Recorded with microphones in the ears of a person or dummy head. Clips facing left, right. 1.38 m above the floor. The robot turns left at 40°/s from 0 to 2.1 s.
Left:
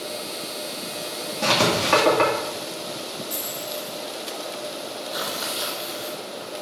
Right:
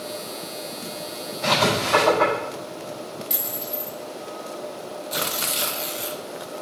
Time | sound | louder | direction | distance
1.4 | writing | left 1 dB | 75° left (ahead or behind) | 2.5 m
3.3 | a dropped coin | left 1 dB | 35° right (ahead or behind) | 3 m
5.1 | tearing paper | right 2 dB | 30° right (ahead or behind) | 0.6 m